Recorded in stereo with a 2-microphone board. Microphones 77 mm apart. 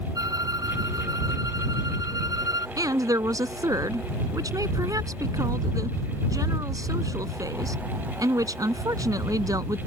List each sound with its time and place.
0.1 s a violin: 55° right (ahead or behind)
2.8 s a woman speaking: 50° right (ahead or behind)